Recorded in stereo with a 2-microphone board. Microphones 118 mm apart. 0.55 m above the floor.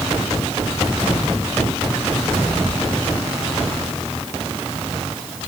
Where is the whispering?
No whispering in this recording.